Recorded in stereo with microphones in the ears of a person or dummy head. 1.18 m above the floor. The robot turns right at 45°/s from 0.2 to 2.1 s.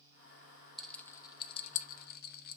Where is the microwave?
No microwave in this recording.